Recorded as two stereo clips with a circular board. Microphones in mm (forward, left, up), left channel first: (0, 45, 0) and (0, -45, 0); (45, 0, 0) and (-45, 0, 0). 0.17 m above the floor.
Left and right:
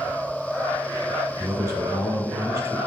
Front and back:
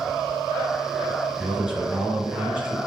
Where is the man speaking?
110° right, 1.8 m.